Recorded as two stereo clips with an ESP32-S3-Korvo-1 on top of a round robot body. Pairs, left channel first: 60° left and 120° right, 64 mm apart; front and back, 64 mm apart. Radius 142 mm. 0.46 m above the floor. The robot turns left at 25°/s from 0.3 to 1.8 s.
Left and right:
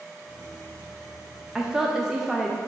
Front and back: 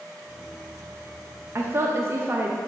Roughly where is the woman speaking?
Behind.